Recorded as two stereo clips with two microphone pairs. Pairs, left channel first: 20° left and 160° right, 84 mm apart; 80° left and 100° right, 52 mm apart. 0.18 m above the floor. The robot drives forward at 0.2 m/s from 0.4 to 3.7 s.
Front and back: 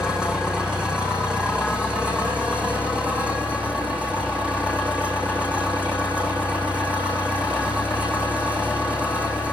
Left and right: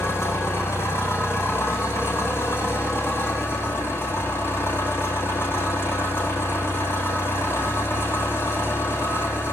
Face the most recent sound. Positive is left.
turn(degrees=120)